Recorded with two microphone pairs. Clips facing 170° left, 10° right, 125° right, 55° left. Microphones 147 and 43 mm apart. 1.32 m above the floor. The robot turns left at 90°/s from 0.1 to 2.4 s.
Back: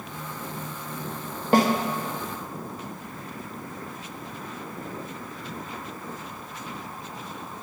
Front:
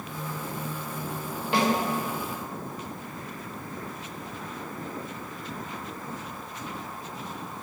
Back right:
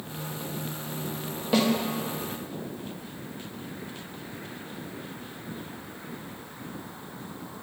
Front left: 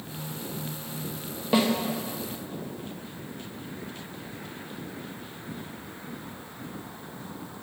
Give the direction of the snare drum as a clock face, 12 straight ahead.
8 o'clock.